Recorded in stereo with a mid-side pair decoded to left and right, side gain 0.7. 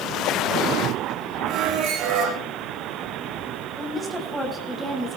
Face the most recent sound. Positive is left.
turn(degrees=-10)